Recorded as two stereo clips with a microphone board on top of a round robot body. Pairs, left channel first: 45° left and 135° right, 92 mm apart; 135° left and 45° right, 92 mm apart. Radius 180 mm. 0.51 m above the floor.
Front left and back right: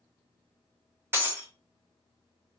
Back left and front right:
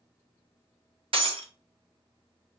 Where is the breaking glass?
70° right, 1.5 m.